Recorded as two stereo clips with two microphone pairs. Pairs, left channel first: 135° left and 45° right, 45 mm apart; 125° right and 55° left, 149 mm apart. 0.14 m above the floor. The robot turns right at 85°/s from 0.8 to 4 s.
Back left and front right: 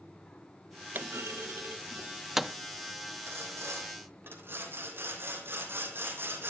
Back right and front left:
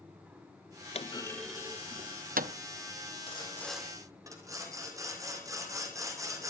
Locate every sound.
0.9 s a clunk: 85° right, 0.6 m; by 2.5 s 50° left, 0.6 m
3.3 s sawing: 75° right, 3.5 m; by 6.5 s 10° right, 3.5 m